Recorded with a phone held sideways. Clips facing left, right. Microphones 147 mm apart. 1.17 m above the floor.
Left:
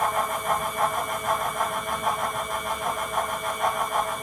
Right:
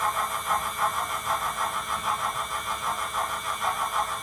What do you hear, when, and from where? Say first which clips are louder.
0.0 s a fan: left 4 dB; 55° left (ahead or behind), 3 m